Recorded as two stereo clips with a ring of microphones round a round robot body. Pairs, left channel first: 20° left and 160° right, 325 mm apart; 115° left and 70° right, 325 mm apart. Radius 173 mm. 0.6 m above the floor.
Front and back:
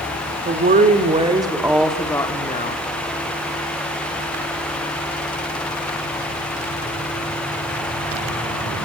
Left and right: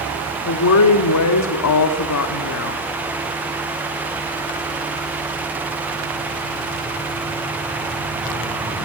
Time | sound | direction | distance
0.5 | a woman speaking | 145° left | 1.8 m